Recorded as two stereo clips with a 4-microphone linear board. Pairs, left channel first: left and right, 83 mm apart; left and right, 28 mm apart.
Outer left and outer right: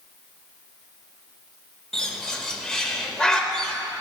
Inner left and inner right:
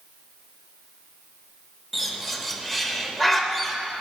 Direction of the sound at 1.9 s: 10° left (ahead or behind).